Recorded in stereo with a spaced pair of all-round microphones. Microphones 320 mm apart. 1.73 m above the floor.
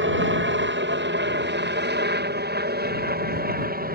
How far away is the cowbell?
No cowbell in this recording.